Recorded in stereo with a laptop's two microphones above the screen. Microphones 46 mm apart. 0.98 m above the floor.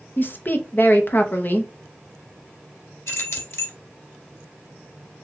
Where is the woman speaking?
45° left (ahead or behind), 0.7 m.